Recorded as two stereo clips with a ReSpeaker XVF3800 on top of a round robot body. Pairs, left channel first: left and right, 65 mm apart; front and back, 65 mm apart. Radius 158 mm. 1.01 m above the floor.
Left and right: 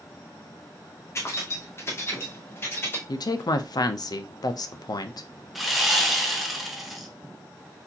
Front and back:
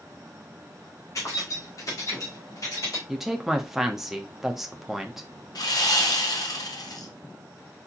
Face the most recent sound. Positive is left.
turn(degrees=-5)